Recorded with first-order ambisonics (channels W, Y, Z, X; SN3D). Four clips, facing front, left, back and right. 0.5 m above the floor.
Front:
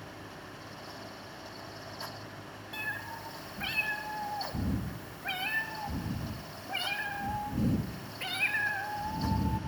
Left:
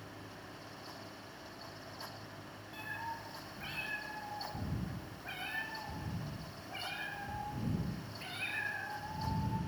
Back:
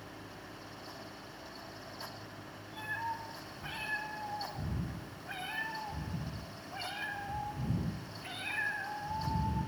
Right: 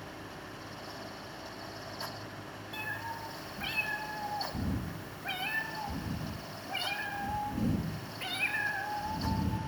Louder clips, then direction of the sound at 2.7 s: Right 4 dB, front 1 dB; 25° right.